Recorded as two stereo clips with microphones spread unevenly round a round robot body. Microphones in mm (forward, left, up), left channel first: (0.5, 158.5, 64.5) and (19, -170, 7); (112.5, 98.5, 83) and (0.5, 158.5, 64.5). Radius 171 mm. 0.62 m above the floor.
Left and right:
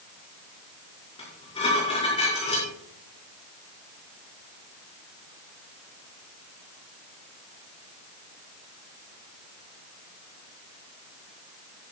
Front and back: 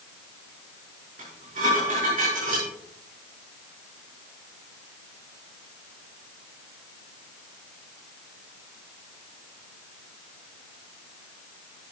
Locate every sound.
1.2 s dishes clattering: 170° left, 6 m